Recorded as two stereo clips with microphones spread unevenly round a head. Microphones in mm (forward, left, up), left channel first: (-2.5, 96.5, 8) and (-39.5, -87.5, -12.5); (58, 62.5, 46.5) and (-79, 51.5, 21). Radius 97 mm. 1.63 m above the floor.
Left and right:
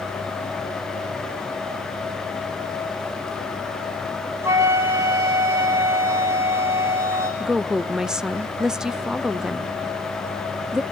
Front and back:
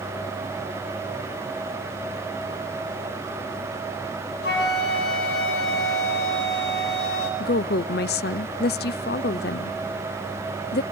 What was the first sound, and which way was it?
A flute, 20° right.